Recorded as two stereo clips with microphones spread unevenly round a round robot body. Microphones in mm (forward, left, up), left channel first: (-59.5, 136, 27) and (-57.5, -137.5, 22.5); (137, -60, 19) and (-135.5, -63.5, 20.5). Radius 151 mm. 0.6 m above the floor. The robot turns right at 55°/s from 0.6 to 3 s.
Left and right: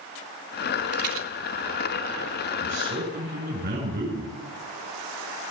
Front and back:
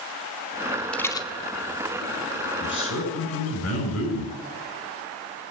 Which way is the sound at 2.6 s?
45° right.